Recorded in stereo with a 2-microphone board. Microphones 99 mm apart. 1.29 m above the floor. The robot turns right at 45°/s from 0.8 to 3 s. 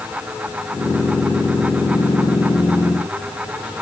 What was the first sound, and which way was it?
Only background noise.